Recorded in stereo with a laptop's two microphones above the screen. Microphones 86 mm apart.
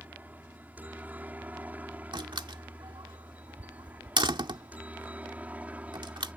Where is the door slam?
70° right (ahead or behind).